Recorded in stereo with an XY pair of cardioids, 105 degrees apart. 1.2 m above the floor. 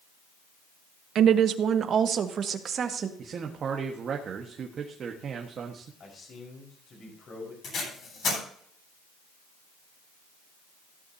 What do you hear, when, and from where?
1.1 s a woman speaking: 65° right, 1.0 m; by 3.1 s 50° right, 2.0 m
3.2 s a man speaking: 50° right, 1.6 m
6.0 s a man speaking: 50° left, 5 m
7.6 s tape being pulled: 55° left, 10 m